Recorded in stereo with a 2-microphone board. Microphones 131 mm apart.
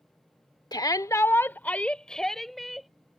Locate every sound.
0.7 s a shout: 30° left (ahead or behind); by 2.9 s centre (ahead or behind)